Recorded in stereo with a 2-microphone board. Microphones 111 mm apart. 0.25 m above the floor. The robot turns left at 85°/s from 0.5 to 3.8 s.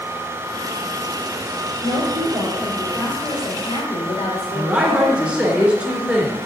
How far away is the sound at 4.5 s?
About 3 m.